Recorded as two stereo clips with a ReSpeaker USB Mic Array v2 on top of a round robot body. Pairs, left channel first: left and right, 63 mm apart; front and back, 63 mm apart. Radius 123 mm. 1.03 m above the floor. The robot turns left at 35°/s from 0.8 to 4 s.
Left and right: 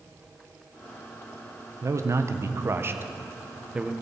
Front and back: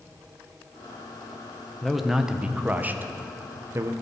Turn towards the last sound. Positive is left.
turn(degrees=-165)